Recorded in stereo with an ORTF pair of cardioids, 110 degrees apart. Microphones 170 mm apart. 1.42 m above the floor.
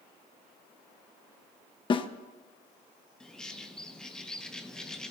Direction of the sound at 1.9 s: 30° left.